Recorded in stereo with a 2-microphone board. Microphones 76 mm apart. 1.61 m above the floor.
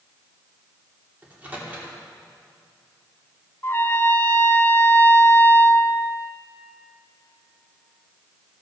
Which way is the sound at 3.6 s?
30° left (ahead or behind).